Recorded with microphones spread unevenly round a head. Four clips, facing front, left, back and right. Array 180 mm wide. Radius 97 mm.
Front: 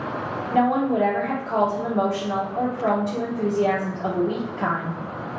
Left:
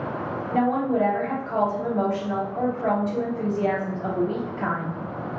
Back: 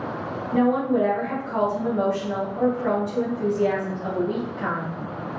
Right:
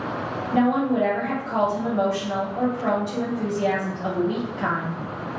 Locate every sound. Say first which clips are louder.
0.5 s a woman speaking: right 2 dB, even; straight ahead, 1.7 m